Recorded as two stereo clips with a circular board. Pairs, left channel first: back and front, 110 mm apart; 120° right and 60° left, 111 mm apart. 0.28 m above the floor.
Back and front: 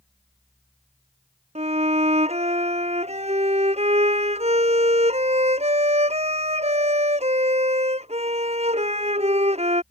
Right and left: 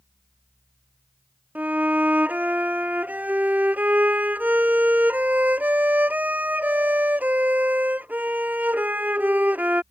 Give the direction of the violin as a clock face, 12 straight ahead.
1 o'clock.